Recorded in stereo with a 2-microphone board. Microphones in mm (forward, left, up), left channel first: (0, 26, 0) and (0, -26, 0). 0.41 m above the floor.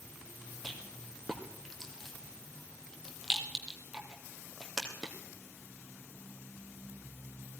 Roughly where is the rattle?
Centre.